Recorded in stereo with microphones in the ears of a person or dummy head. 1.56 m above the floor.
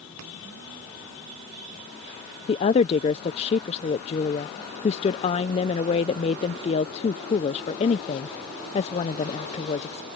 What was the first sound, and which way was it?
A woman speaking, 30° left (ahead or behind).